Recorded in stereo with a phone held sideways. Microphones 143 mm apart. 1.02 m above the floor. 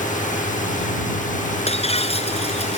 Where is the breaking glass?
45° left (ahead or behind).